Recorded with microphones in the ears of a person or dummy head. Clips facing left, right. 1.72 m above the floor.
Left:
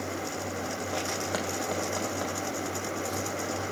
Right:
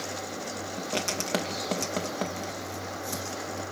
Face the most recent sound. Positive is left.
turn(degrees=-35)  # may be behind; listen again after turning